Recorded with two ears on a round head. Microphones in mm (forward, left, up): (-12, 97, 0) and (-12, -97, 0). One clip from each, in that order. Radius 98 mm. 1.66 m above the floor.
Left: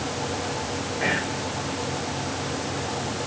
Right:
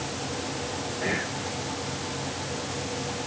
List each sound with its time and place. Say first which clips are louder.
1.0 s whispering: left 4 dB; 75° left (ahead or behind), 6 m